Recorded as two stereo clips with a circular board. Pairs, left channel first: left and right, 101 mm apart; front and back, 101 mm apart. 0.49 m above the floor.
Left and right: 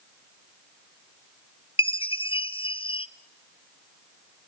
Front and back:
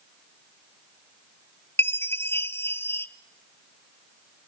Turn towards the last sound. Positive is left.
turn(degrees=65)